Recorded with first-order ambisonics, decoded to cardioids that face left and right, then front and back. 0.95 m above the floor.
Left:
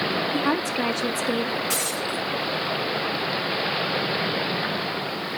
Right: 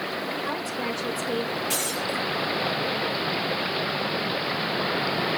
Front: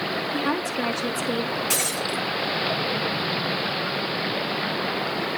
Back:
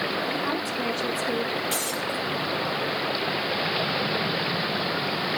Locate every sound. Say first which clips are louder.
0.3 s a woman speaking: left 5 dB, front 2 dB; 65° left, 1.5 m
1.7 s breaking glass: left 1 dB, front 2 dB; 10° left, 7 m